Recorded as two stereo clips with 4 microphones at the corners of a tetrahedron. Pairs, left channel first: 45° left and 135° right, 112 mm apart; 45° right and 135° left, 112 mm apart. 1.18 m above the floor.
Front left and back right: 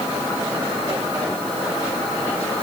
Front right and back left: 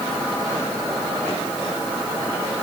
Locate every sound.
Only background noise.